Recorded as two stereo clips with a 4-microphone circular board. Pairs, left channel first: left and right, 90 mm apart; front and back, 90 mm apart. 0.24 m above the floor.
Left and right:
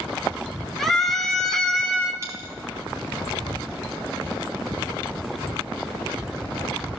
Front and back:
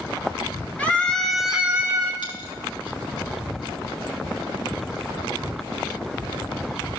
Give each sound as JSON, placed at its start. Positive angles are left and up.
{"t": 0.8, "sound": "a scream", "azimuth_deg": 5, "distance_m": 1.6}
{"t": 2.2, "sound": "a dropped coin", "azimuth_deg": -30, "distance_m": 5.0}